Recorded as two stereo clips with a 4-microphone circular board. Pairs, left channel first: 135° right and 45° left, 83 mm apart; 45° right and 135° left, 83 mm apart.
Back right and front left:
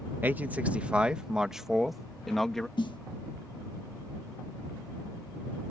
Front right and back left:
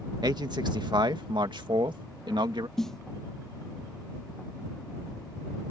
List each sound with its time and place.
0.2 s a man speaking: 110° left; by 2.7 s 140° left
2.8 s a snare drum: 130° right